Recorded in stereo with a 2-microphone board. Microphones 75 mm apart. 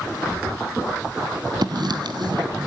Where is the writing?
65° right (ahead or behind), 1.6 m.